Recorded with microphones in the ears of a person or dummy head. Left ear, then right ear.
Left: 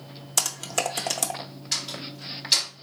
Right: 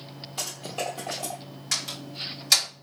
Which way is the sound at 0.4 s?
55° left (ahead or behind).